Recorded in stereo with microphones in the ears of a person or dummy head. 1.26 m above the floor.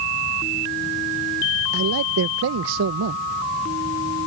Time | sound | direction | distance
1.7 | a man speaking | 75° right (ahead or behind) | ?